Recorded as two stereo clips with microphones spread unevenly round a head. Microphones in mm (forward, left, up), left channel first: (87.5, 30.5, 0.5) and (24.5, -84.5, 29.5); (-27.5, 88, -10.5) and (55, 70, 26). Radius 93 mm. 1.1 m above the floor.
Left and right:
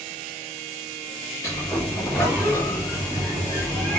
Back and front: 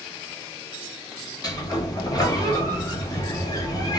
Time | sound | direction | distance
1.4 | a sliding door | 130° left | 1.0 m